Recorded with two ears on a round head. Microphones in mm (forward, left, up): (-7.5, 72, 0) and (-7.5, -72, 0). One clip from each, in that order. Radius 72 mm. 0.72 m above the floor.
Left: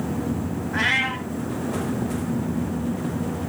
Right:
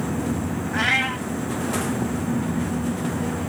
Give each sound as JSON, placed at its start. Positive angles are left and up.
{"t": 0.7, "sound": "a cat meowing", "side_deg": -20, "distance_m": 0.9}